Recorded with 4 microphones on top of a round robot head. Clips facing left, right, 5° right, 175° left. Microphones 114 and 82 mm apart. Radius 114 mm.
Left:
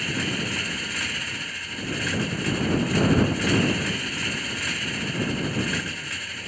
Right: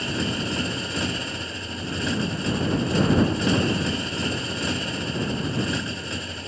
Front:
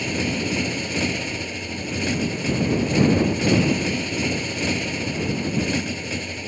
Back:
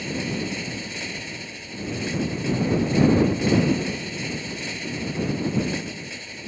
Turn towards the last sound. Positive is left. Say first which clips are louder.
# right 2 dB, front 3 dB
turn(degrees=-20)